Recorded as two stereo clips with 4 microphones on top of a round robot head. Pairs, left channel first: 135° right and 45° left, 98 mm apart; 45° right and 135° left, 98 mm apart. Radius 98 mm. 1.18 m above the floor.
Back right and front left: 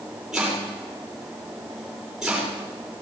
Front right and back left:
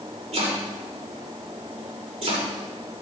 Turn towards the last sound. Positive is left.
turn(degrees=130)